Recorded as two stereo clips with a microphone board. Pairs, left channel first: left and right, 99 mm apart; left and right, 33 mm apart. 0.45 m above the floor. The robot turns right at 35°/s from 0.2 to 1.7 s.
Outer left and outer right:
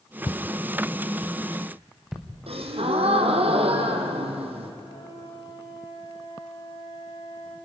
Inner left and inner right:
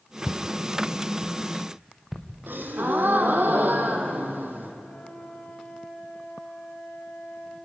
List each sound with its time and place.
0.3 s footsteps: 45° left (ahead or behind), 1.0 m; by 2.3 s 5° right (ahead or behind), 3.5 m
2.5 s a gasp: 75° right (ahead or behind), 2.5 m
4.8 s a flute: 70° left (ahead or behind), 6.5 m